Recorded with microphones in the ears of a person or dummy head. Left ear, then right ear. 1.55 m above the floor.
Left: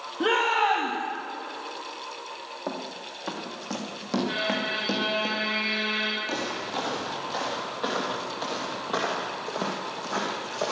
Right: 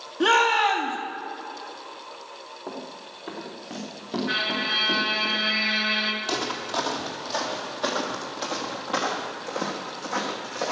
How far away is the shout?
About 2 m.